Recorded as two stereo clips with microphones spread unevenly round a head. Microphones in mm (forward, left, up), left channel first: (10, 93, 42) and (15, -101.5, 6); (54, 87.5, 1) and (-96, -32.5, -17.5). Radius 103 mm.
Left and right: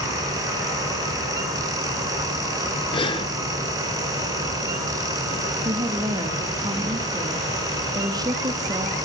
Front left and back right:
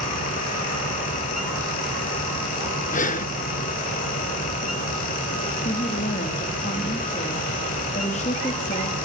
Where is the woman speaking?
20° right, 1.4 m.